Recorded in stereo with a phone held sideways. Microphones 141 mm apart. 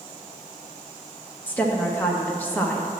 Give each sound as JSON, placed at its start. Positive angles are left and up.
{"t": 1.5, "sound": "a woman speaking", "side_deg": 15, "distance_m": 1.3}